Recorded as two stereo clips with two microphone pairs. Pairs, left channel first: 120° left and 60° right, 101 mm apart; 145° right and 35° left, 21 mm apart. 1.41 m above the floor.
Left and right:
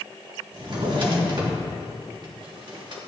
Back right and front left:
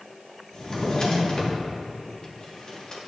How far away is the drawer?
About 1.7 m.